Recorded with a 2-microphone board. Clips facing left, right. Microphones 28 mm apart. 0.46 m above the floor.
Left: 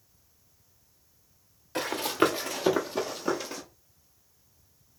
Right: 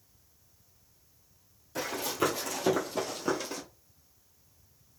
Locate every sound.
1.8 s running footsteps: 60° left (ahead or behind), 0.9 m; by 3.6 s 5° left (ahead or behind), 1.3 m